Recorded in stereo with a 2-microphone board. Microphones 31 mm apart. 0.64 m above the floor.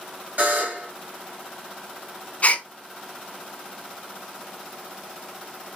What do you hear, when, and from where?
0.4 s a buzzer: 60° right (ahead or behind), 2.5 m
2.4 s a gasp: 45° left (ahead or behind), 0.6 m